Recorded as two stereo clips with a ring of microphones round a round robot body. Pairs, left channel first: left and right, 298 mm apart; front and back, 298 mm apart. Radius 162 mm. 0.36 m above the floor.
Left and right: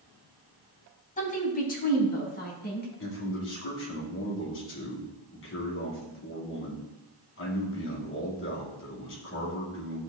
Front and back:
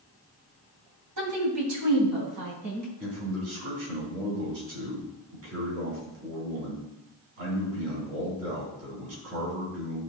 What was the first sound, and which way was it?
A woman speaking, 150° left.